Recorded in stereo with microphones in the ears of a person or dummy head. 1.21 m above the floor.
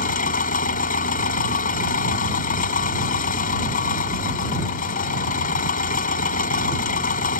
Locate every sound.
0.0 s an engine running: 45° left (ahead or behind)